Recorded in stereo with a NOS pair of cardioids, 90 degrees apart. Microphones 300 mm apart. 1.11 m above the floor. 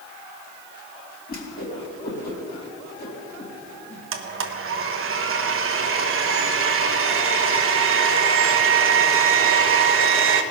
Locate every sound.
1.3 s a whoosh: 30° left, 4 m
4.1 s a blender: 45° right, 1.2 m